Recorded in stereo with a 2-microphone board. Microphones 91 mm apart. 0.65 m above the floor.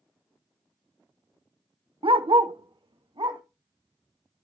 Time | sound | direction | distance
2.0 | a dog barking | 75° right (ahead or behind) | 0.6 m